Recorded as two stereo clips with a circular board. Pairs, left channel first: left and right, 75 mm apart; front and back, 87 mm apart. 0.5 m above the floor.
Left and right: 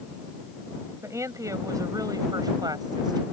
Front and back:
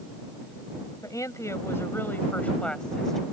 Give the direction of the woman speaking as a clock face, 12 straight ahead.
1 o'clock.